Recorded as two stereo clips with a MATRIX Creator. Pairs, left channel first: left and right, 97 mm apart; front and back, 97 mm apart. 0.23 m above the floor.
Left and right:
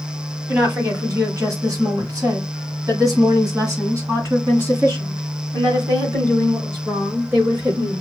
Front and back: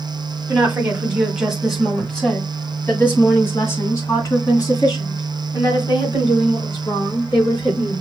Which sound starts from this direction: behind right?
A woman speaking, at 0.5 s.